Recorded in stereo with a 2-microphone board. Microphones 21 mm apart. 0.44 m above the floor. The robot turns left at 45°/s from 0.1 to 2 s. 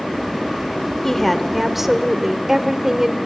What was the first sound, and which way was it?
A woman speaking, 25° left.